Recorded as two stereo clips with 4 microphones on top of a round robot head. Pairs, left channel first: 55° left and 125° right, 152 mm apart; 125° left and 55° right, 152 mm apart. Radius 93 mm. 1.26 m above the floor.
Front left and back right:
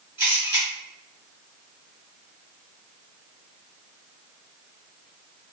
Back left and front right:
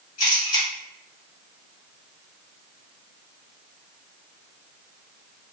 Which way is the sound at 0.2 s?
165° left.